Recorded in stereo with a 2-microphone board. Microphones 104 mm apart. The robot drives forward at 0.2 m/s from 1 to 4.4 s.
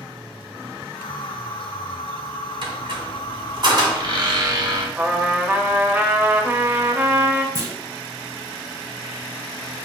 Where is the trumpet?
20° right (ahead or behind), 0.5 m.